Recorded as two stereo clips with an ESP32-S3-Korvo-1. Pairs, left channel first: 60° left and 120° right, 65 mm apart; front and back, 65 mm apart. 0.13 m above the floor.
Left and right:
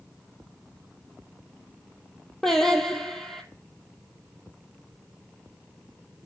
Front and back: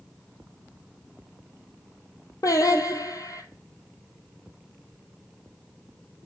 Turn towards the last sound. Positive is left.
turn(degrees=-25)